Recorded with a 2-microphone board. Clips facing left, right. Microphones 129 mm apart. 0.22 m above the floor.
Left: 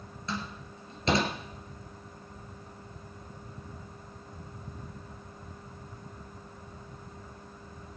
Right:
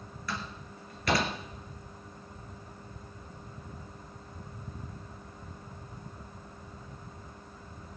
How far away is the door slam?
About 3 m.